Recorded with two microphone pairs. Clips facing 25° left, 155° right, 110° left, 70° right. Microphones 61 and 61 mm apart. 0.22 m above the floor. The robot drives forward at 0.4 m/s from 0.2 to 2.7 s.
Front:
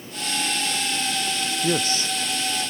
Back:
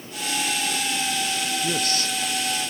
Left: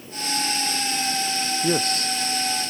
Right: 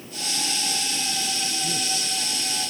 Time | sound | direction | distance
1.6 | a man speaking | 85° left | ?